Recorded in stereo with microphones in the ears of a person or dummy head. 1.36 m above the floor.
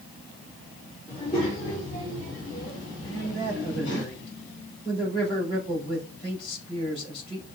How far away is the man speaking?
About 4 m.